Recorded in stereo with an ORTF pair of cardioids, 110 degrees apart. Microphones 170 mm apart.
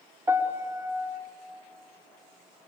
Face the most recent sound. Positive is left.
turn(degrees=-15)